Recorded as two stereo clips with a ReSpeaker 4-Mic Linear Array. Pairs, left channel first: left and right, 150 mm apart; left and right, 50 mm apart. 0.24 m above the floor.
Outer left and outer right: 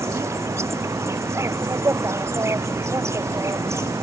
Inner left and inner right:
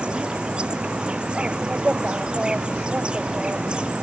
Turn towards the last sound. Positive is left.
turn(degrees=-20)  # may be behind; listen again after turning